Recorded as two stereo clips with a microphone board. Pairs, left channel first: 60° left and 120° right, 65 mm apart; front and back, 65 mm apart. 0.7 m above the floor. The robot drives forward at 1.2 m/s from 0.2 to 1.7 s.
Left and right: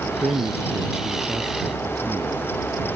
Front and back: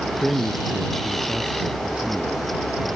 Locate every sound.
0.2 s a man speaking: 100° right; by 3.0 s 105° right